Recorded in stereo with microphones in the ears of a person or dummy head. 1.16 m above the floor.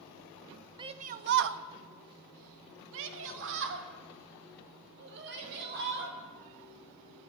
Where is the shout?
20° right (ahead or behind), 0.8 m; by 6.2 s 55° right (ahead or behind), 4 m.